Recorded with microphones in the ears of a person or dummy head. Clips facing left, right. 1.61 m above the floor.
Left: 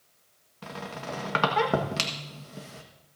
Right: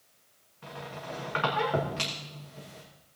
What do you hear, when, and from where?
0.6 s a squeak: 55° left (ahead or behind), 1.5 m